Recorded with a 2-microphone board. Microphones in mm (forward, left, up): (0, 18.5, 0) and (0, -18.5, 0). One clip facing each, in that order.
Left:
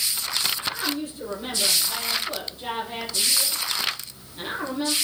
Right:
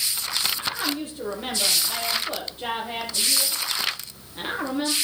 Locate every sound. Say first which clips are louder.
0.6 s a woman speaking: even; 45° right (ahead or behind), 5.5 m